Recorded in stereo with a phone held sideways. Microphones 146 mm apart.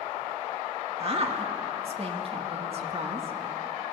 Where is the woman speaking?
45° right (ahead or behind), 2 m.